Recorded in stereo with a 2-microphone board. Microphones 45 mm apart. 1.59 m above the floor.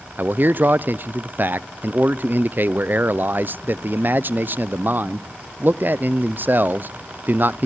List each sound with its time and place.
0.2 s a man speaking: 45° right (ahead or behind), 0.6 m